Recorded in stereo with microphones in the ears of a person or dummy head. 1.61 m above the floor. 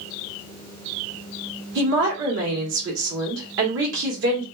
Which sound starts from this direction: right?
A woman speaking, at 1.8 s.